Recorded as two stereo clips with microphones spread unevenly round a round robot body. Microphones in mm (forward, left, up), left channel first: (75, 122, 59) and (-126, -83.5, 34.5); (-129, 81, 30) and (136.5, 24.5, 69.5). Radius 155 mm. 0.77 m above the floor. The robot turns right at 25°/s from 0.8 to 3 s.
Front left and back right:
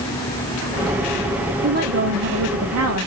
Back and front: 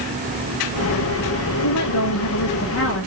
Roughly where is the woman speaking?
Behind.